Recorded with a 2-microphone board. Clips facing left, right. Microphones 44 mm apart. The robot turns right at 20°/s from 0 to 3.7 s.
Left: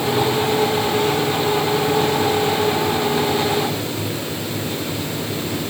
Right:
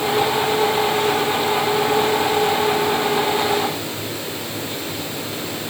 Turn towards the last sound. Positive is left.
No sound to turn to.